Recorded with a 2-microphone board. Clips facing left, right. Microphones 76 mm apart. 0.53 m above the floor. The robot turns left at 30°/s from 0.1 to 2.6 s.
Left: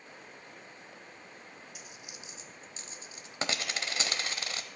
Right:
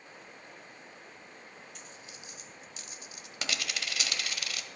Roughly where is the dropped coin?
Centre.